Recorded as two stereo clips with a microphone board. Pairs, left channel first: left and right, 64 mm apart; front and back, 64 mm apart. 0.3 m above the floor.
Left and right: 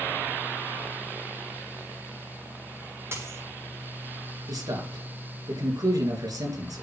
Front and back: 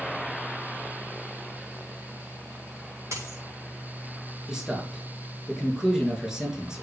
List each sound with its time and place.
3.1 s a dropped coin: 140° right, 7 m
4.5 s a man speaking: 100° right, 4.5 m